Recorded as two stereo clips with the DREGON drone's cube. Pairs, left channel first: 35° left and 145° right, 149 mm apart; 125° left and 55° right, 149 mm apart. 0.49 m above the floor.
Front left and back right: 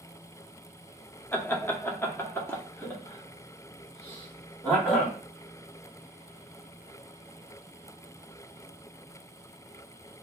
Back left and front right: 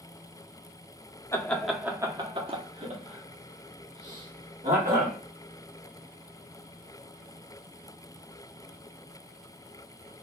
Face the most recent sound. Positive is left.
turn(degrees=-45)